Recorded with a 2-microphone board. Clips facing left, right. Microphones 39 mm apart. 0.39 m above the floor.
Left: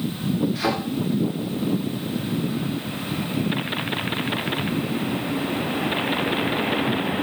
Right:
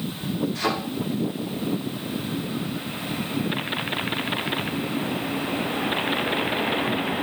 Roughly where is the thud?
Centre.